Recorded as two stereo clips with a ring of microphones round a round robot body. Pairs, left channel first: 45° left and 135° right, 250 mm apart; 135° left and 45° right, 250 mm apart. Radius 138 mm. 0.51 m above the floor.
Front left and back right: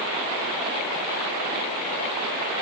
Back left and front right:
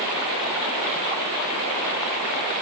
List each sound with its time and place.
Only background noise.